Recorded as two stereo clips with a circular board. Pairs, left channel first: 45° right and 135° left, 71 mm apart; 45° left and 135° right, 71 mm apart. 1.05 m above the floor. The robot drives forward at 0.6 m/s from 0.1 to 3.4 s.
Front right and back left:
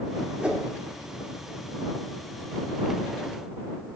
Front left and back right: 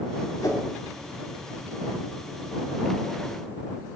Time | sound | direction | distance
0.4 | a whoosh | 60° left | 2.5 m